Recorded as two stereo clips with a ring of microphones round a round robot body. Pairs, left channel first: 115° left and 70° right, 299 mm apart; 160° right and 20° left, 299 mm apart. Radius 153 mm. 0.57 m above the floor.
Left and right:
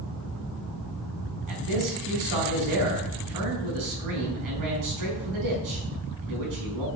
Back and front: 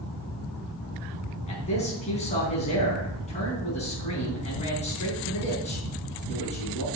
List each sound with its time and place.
1.5 s a man speaking: 90° right, 5 m